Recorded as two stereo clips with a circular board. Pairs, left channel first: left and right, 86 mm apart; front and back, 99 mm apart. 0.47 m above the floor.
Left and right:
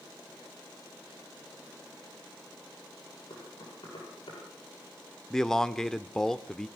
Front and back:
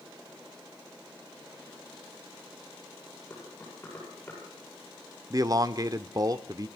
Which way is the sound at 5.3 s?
170° left.